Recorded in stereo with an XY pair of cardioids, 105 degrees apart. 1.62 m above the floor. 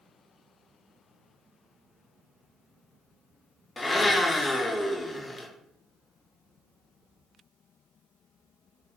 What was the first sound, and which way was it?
A blender, 20° left.